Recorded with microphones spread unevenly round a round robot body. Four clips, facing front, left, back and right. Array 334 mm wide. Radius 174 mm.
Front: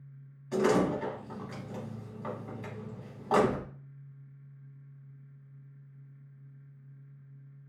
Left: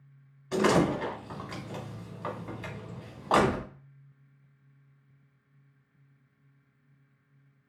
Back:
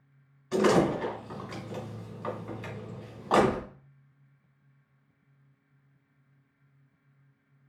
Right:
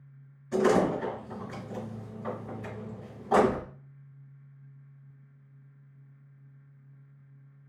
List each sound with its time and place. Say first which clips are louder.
0.5 s a door slam: right 1 dB, back 3 dB; 105° left, 3 m